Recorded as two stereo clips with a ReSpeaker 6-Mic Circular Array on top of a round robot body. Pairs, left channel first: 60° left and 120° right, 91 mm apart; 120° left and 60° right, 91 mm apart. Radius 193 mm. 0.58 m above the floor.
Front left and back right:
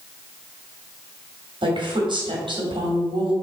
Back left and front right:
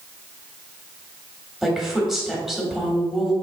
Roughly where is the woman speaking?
Behind right.